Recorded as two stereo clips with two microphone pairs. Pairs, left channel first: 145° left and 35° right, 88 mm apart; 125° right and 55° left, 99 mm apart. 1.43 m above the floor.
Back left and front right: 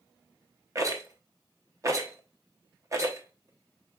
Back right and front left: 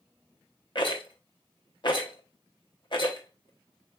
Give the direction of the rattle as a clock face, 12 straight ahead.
3 o'clock.